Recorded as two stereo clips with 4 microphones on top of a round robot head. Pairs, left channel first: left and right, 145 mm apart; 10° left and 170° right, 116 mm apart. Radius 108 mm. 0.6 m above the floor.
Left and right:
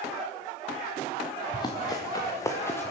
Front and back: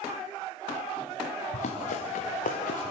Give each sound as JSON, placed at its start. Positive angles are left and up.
{"t": 1.5, "sound": "running footsteps", "azimuth_deg": 30, "distance_m": 3.0}